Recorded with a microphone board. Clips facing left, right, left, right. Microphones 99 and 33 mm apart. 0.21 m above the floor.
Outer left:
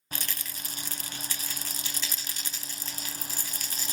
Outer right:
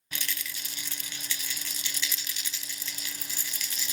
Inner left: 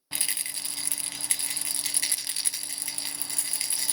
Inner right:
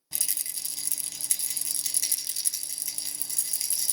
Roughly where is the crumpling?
No crumpling in this recording.